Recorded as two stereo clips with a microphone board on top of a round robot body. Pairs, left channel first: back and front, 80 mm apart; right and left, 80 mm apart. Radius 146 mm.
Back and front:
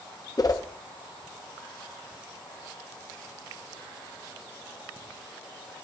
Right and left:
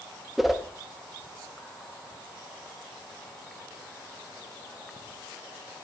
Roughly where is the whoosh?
Behind.